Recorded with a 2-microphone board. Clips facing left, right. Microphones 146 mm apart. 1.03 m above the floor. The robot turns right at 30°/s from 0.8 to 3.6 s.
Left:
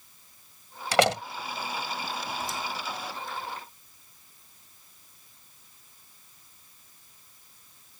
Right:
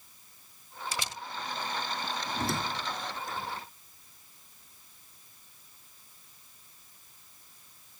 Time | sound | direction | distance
0.9 | a door slam | 80° left | ?
2.3 | a squeak | 70° right (ahead or behind) | ?